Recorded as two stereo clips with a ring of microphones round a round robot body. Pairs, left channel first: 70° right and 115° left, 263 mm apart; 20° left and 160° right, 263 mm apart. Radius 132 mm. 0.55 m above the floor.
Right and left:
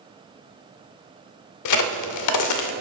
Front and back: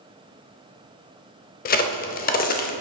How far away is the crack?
About 0.6 m.